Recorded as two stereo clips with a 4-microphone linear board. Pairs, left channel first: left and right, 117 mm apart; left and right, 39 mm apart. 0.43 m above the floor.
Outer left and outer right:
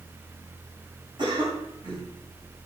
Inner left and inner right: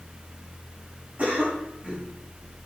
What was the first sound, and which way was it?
A cough, 40° right (ahead or behind).